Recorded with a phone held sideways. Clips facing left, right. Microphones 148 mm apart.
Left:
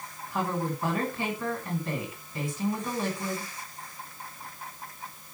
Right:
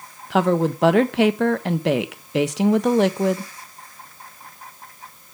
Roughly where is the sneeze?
No sneeze in this recording.